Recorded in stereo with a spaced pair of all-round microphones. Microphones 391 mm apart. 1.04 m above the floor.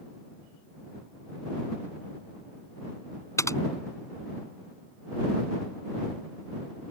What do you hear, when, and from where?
3.4 s typing on a keyboard: 5° left (ahead or behind)